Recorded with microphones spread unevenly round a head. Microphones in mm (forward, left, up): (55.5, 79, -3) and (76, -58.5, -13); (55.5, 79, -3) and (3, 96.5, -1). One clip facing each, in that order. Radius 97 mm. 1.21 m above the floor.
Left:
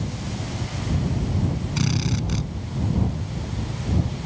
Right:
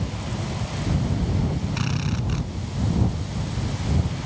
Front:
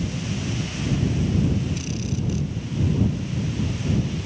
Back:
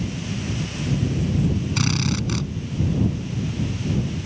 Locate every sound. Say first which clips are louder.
1.8 s a drill: left 2 dB, back 5 dB; 160° left